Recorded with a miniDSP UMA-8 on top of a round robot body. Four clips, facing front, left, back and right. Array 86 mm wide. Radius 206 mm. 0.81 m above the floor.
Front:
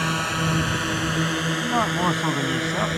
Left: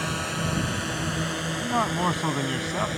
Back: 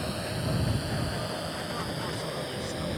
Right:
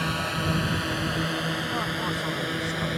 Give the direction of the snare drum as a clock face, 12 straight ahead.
No snare drum in this recording.